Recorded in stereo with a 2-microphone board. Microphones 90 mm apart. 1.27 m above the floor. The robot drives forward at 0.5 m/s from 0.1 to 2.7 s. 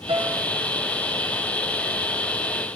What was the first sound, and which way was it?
A piano, 70° right (ahead or behind).